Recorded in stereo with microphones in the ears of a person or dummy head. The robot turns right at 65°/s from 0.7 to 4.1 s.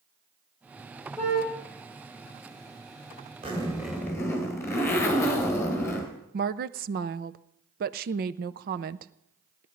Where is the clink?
No clink in this recording.